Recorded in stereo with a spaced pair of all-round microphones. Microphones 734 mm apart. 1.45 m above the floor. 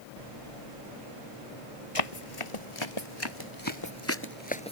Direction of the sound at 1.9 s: 50° left (ahead or behind).